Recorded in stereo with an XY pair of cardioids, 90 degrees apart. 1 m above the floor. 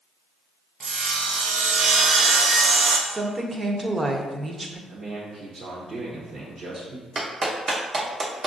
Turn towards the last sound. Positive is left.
turn(degrees=-55)